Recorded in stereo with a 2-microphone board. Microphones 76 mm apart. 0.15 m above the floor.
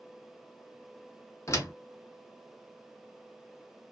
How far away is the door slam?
About 1.0 m.